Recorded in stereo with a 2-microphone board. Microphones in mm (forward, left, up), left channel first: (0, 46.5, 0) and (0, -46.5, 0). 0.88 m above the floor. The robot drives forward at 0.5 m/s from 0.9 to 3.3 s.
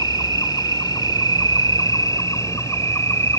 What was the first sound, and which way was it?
An insect, 55° left (ahead or behind).